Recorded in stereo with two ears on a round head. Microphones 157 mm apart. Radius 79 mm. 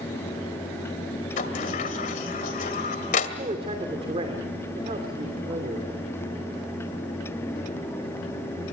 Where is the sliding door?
45° left (ahead or behind), 2 m.